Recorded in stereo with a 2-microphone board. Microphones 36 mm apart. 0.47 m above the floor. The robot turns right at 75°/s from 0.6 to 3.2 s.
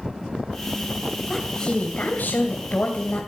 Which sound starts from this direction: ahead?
A woman speaking, at 1.3 s.